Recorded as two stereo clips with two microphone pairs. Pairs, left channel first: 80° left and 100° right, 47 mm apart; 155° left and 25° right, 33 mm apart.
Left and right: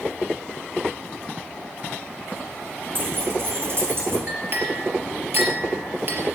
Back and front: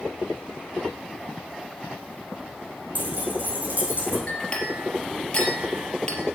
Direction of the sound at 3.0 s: 60° right.